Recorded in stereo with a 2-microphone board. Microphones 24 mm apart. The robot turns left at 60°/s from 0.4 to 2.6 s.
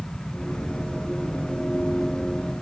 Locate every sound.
Only background noise.